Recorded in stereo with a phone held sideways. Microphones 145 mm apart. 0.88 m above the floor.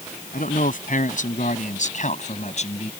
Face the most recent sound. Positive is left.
turn(degrees=50)  # may be behind; listen again after turning